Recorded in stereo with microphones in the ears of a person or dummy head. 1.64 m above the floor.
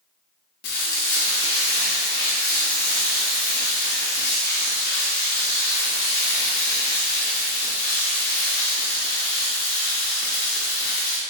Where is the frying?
60° left (ahead or behind), 0.9 m.